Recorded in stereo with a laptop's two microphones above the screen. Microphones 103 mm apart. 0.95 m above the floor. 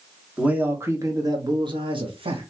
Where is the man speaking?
10° right (ahead or behind), 1.0 m; by 2.5 s 60° right (ahead or behind), 1.4 m.